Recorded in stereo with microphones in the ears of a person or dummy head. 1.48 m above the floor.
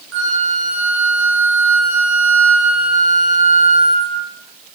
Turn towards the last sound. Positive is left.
turn(degrees=-60)  # may be behind; listen again after turning